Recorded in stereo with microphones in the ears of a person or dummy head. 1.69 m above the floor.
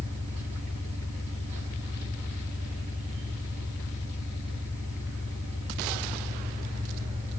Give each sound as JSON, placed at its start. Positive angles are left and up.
{"t": 0.0, "sound": "an engine running", "side_deg": -40, "distance_m": 3.0}